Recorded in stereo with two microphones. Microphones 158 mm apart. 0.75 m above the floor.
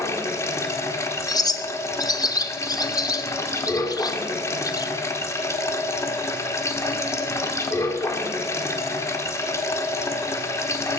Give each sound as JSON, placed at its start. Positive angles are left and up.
{"t": 0.0, "sound": "running water", "side_deg": 15, "distance_m": 1.4}
{"t": 1.3, "sound": "a bird", "side_deg": 25, "distance_m": 0.8}